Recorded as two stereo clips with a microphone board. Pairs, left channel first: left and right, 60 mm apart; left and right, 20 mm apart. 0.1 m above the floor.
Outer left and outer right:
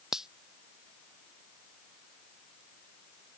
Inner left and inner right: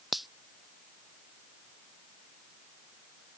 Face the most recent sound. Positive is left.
turn(degrees=-10)  # may be behind; listen again after turning